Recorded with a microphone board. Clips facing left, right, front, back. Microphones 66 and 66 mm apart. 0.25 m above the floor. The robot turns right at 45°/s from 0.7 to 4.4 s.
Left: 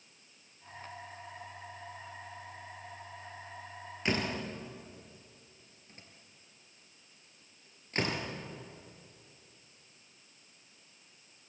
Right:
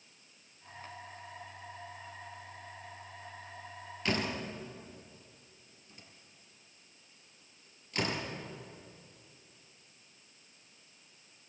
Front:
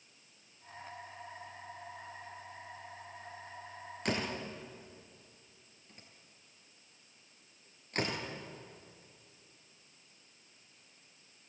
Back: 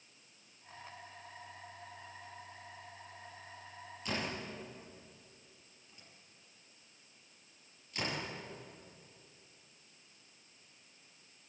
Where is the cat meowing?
I don't hear a cat meowing.